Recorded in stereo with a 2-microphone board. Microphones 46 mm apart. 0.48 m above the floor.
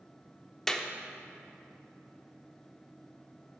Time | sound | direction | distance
0.7 | a clap | 10° left (ahead or behind) | 0.5 m